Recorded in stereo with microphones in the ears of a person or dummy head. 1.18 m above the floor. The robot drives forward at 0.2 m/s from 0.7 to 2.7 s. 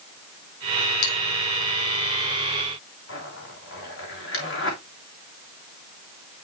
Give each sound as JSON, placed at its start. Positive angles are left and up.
{"t": 1.0, "sound": "a bell", "side_deg": 55, "distance_m": 6.0}
{"t": 3.1, "sound": "a zipper", "side_deg": 65, "distance_m": 3.0}